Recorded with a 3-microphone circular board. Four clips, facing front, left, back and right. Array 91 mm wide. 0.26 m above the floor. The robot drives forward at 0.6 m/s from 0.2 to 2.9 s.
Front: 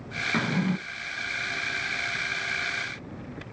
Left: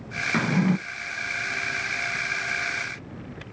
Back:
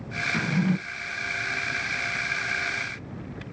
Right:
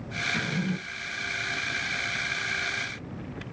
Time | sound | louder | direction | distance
0.3 | a drawer | left 9 dB, back 1 dB | 60° left | 0.6 m